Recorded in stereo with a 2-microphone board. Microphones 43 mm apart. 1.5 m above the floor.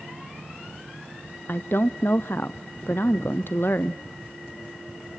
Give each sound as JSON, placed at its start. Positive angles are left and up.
{"t": 1.5, "sound": "a woman speaking", "side_deg": 55, "distance_m": 0.5}